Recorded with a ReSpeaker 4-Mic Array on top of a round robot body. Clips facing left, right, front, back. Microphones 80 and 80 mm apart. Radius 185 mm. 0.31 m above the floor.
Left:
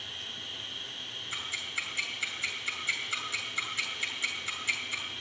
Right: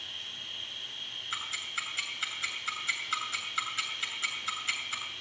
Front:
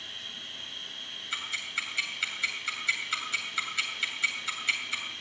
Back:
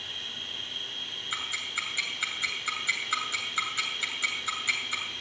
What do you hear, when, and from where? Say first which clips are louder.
0.0 s an insect: left 2 dB, back 3 dB; 145° left, 8.5 m
1.3 s ticking: right 1 dB, back 1 dB; 120° right, 8 m